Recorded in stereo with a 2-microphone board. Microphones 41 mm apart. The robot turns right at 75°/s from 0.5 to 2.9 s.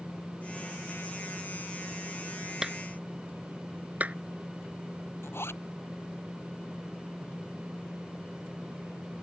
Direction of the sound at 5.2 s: 75° left (ahead or behind).